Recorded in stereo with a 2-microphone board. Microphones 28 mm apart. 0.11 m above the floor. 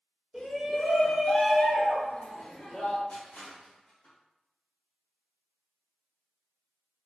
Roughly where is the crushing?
Left.